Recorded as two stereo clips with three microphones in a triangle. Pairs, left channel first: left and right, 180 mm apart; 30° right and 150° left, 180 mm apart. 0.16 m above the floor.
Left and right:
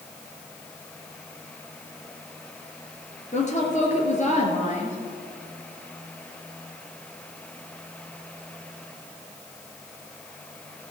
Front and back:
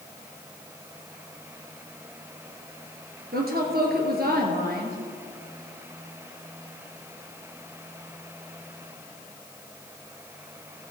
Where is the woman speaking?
130° left, 2.5 m.